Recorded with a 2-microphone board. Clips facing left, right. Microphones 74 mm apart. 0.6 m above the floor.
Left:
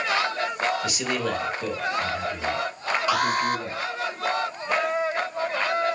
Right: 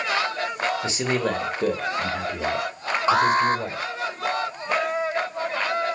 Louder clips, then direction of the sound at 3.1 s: Right 6 dB; 30° right (ahead or behind).